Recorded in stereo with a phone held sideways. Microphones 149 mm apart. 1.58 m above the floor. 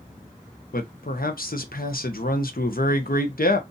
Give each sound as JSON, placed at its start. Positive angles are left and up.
{"t": 0.7, "sound": "a man speaking", "side_deg": 75, "distance_m": 0.7}